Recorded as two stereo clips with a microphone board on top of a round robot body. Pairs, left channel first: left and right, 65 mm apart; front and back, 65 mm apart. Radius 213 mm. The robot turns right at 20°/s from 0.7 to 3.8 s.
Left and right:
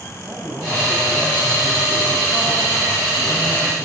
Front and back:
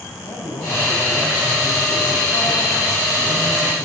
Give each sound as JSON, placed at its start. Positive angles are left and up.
{"t": 0.2, "sound": "a man speaking", "azimuth_deg": -20, "distance_m": 4.0}